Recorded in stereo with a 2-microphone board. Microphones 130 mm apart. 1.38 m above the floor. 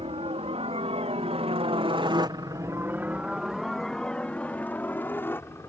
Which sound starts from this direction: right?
A helicopter, at 0.0 s.